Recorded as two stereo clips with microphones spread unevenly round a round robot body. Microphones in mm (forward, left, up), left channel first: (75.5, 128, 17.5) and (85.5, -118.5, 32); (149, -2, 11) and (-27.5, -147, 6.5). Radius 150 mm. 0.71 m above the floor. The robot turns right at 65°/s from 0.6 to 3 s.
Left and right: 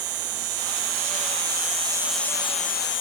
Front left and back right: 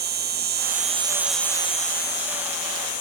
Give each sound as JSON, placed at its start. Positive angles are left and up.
{"t": 0.0, "sound": "an insect", "azimuth_deg": -100}